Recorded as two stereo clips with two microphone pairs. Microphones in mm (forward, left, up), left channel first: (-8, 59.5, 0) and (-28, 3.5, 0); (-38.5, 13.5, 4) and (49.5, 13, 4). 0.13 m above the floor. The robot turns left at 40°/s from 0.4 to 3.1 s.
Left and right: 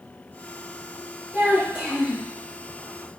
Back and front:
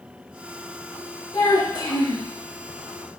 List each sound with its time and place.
1.3 s a child speaking: 165° right, 1.6 m; by 2.3 s 160° left, 1.6 m